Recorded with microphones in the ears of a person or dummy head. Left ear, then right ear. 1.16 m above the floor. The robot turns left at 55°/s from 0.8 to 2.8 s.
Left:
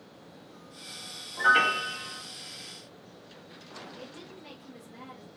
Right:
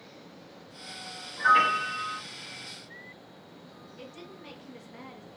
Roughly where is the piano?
Ahead left.